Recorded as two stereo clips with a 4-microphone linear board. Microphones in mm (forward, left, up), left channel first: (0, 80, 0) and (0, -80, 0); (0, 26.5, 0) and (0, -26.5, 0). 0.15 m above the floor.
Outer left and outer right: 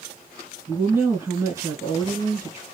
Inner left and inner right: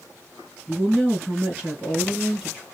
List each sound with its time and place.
0.7 s a woman speaking: 15° right (ahead or behind), 1.6 m